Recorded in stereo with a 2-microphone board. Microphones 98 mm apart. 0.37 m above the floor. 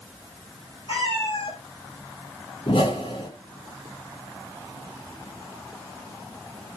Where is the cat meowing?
85° left, 6.5 m.